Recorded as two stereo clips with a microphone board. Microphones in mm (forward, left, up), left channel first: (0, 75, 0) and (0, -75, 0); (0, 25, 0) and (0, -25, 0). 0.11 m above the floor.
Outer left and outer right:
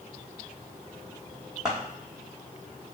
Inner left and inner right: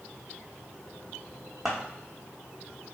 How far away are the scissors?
About 1.2 m.